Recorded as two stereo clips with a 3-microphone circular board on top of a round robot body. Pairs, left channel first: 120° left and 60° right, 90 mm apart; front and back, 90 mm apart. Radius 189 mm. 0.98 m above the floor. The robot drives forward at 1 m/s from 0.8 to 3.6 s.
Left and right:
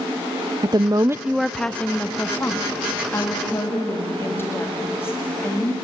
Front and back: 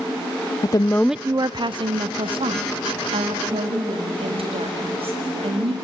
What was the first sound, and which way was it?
A woman speaking, 35° right.